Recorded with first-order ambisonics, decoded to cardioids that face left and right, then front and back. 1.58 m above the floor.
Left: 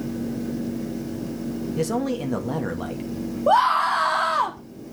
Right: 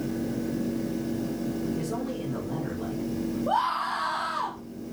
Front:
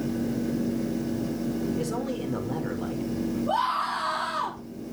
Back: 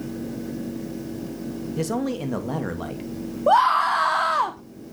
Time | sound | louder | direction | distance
1.8 | a man speaking | left 7 dB, back 3 dB | 140° left | 2 m
3.5 | a scream | left 9 dB, back 10 dB | 145° left | 1.3 m